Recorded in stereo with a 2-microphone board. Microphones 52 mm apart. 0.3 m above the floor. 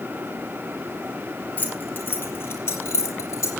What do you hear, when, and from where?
1.6 s keys jangling: 30° left (ahead or behind), 4 m; by 3.5 s 60° left (ahead or behind), 5.5 m